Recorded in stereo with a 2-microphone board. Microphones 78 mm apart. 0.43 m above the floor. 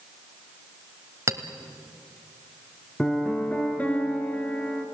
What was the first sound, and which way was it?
A clink, 40° right (ahead or behind).